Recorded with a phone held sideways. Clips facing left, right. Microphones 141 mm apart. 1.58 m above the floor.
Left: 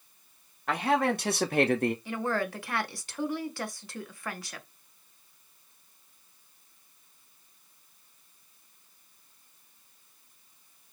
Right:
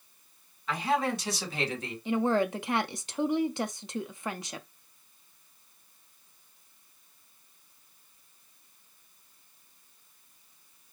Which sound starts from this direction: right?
A woman speaking, at 2.0 s.